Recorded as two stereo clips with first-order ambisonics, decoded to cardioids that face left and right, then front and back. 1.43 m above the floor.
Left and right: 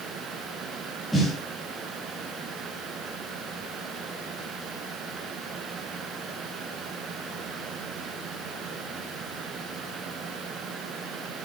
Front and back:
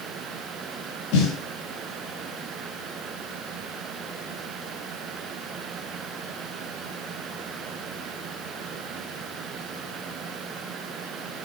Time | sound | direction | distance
1.1 | a snare drum | 5° right | 3.5 m